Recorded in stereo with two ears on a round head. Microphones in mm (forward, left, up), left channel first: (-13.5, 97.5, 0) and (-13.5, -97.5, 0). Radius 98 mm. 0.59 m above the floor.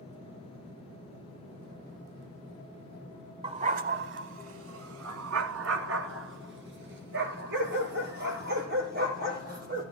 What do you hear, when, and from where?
3.4 s a dog barking: 30° right (ahead or behind), 1.0 m; by 9.8 s 45° right (ahead or behind), 4.5 m